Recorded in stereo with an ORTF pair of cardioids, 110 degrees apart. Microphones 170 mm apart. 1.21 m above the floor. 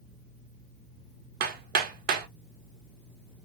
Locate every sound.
1.4 s hammering: 65° right, 0.6 m